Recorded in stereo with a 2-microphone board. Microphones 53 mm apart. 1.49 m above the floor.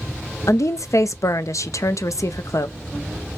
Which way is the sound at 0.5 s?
80° left.